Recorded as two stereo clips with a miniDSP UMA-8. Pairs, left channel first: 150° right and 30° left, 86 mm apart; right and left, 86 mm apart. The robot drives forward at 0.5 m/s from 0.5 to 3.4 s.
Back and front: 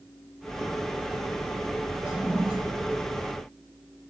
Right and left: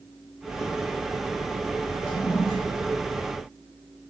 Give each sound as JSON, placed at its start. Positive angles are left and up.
{"t": 2.0, "sound": "a toilet flushing", "azimuth_deg": -45, "distance_m": 4.5}